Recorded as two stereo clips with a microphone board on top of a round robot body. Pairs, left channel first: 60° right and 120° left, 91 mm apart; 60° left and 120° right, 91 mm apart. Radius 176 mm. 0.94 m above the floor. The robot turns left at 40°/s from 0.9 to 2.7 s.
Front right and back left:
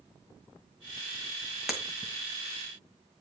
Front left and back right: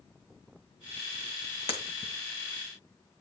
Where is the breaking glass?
35° left, 2.0 m; by 2.1 s 15° left, 2.0 m.